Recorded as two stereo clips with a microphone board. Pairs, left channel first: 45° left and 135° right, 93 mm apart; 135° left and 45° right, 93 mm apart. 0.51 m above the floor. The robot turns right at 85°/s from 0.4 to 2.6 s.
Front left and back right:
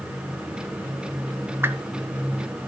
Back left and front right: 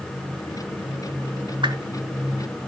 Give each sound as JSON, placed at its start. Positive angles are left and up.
{"t": 1.6, "sound": "a whoosh", "azimuth_deg": -70, "distance_m": 1.0}